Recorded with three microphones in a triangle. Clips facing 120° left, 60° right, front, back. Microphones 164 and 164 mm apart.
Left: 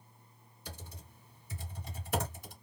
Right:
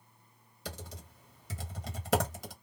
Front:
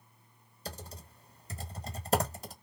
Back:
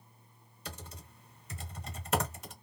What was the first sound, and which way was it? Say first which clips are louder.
Typing on a keyboard: right 6 dB, front 3 dB; 60° right.